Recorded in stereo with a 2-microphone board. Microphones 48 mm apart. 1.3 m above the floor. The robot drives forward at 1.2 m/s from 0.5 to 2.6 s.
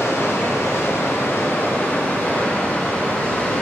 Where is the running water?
80° left, 1.5 m; by 3.6 s 30° left (ahead or behind), 2.5 m.